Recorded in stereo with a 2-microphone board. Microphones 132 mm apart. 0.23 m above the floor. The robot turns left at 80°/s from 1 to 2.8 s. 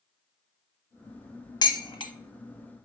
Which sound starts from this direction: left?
Dishes clattering, at 1.6 s.